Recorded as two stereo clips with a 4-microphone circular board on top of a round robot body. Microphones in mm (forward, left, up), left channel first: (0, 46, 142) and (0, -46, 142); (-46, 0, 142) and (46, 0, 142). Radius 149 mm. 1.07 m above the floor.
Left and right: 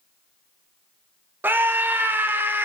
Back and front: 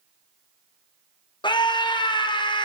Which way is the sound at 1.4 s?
155° right.